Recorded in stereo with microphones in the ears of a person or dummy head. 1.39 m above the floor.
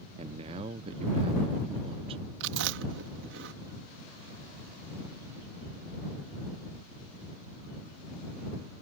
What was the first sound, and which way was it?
A man speaking, 35° right (ahead or behind).